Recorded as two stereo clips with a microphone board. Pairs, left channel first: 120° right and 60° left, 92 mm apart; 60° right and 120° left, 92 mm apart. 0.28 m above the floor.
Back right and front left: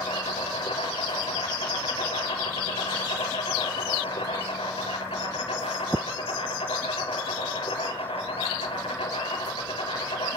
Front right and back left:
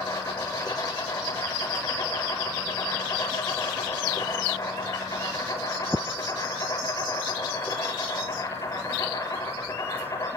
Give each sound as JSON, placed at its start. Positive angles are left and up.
{"t": 0.0, "sound": "an insect", "azimuth_deg": -115, "distance_m": 4.5}